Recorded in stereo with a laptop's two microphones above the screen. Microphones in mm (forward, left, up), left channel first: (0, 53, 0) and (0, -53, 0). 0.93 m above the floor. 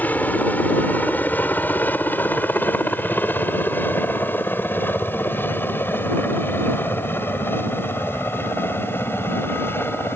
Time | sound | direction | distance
0.0 | a helicopter | 15° left (ahead or behind) | ?